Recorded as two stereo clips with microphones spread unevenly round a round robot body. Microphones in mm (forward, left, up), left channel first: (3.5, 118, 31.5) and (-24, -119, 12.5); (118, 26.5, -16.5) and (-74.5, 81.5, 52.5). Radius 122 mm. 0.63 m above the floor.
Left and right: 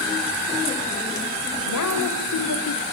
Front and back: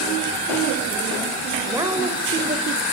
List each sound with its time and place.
1.6 s a woman speaking: 80° left, 3 m; by 2.8 s 115° left, 2 m